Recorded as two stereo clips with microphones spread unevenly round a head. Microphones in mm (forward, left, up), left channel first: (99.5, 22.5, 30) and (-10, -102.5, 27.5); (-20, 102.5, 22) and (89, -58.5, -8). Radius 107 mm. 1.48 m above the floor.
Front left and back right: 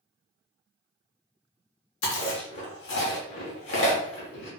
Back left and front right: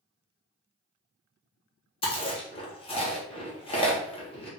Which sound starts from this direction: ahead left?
Chewing, at 2.0 s.